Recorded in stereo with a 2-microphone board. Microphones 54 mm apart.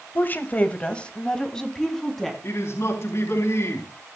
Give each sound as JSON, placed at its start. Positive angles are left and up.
{"t": 0.1, "sound": "a woman speaking", "side_deg": 40, "distance_m": 2.0}
{"t": 2.4, "sound": "a man speaking", "side_deg": 55, "distance_m": 3.5}